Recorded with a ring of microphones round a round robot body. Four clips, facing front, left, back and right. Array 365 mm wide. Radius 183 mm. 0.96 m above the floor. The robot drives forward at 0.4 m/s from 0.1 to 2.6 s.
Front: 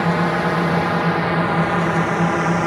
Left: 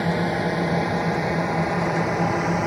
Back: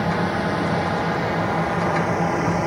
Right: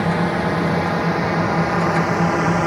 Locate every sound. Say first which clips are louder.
0.0 s a drone: right 3 dB, front 3 dB; 20° right; by 2.7 s 45° right